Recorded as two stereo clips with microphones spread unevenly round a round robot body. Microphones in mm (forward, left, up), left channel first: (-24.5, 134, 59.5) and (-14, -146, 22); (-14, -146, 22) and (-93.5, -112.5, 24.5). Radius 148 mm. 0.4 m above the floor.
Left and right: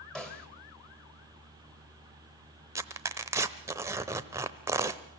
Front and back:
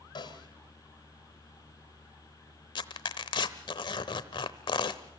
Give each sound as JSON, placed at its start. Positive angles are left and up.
{"t": 0.1, "sound": "a snare drum", "azimuth_deg": 0, "distance_m": 2.5}
{"t": 2.8, "sound": "tearing paper", "azimuth_deg": -15, "distance_m": 0.8}